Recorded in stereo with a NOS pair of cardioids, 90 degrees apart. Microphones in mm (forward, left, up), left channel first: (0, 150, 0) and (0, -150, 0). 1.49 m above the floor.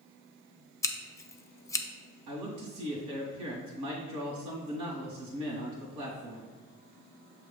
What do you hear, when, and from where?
0.8 s scissors: 10° left, 0.6 m
2.3 s a man speaking: 65° right, 1.9 m